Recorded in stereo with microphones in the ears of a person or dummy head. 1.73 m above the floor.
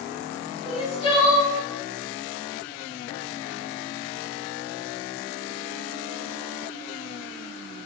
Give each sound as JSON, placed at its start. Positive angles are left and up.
{"t": 0.7, "sound": "crying", "side_deg": 25, "distance_m": 1.6}